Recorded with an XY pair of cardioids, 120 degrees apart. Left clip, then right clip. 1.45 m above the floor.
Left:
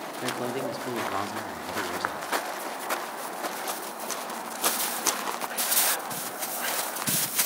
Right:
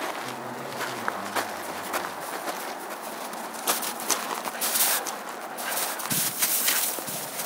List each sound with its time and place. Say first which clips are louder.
0.2 s a man speaking: left 4 dB; 65° left, 4.5 m